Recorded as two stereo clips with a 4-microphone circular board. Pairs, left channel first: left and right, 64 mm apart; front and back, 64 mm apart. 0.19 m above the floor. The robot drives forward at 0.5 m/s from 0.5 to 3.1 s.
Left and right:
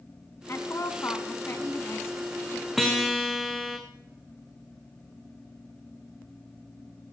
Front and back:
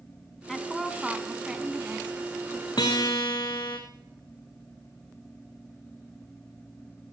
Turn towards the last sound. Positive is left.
turn(degrees=0)